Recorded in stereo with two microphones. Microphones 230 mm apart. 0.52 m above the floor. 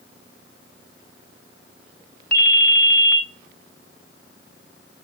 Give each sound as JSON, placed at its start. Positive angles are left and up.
{"t": 2.3, "sound": "a ringtone", "side_deg": 40, "distance_m": 0.8}